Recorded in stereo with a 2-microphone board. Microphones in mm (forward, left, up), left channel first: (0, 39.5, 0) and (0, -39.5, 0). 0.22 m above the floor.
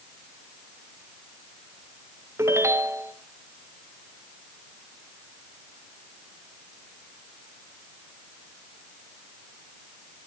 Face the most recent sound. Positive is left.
turn(degrees=-35)  # may be behind; listen again after turning